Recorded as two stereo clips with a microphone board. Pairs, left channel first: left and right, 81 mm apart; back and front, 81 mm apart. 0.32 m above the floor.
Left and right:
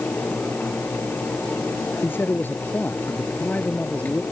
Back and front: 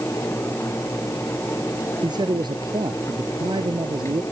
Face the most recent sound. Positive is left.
turn(degrees=15)